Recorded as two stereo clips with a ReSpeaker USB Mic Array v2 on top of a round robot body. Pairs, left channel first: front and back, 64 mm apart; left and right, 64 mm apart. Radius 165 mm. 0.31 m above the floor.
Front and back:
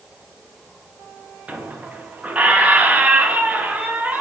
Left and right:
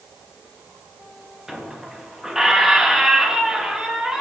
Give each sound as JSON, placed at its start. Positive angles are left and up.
{"t": 1.5, "sound": "a squeak", "azimuth_deg": -160, "distance_m": 0.8}